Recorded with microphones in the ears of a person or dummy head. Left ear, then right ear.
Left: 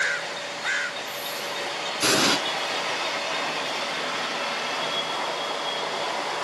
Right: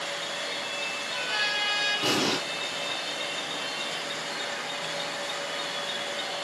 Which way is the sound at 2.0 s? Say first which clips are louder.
Left 5 dB; 75° left (ahead or behind).